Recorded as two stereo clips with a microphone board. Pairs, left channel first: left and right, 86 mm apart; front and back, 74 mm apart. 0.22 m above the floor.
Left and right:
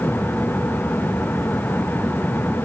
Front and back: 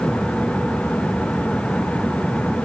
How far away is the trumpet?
No trumpet in this recording.